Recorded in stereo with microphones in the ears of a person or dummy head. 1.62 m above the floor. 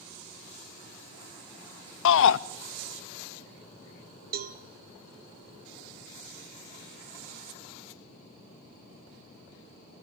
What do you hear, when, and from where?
2.0 s a shout: 80° left, 0.6 m
4.3 s a cowbell: 40° right (ahead or behind), 0.8 m